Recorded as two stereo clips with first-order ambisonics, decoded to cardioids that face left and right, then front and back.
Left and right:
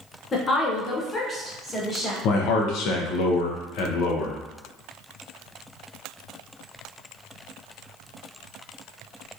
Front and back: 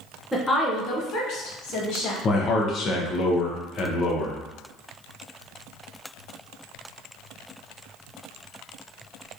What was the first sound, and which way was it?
A woman speaking, 95° left.